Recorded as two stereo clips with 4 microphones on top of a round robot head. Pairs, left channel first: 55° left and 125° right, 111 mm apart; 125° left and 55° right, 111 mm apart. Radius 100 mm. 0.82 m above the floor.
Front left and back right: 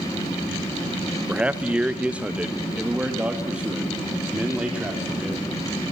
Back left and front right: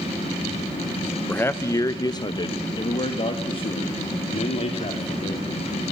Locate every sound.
1.3 s a man speaking: 170° left, 1.0 m; by 5.5 s 155° left, 3.5 m